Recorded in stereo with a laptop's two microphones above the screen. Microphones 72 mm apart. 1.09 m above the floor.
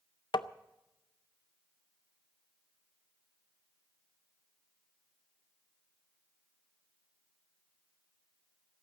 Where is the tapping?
90° left, 0.5 m.